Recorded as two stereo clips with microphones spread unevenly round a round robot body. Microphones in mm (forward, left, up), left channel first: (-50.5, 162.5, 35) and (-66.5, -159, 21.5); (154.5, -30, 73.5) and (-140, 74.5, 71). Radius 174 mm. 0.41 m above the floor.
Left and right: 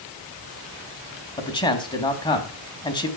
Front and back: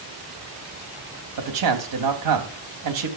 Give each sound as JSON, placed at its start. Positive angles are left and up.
{"t": 1.4, "sound": "a man speaking", "azimuth_deg": 165, "distance_m": 3.0}